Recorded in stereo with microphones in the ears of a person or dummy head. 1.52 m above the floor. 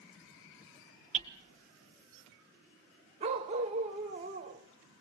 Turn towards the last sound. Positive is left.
turn(degrees=-25)  # may be behind; listen again after turning